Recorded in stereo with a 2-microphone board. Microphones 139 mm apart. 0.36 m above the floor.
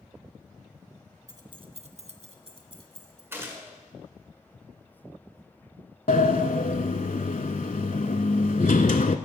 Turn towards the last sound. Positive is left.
turn(degrees=65)  # may be behind; listen again after turning